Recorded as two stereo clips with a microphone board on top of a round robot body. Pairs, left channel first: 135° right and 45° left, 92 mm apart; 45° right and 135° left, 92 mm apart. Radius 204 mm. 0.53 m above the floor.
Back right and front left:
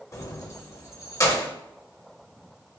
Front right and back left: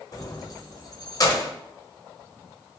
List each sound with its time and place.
0.1 s keys jangling: 85° right, 1.1 m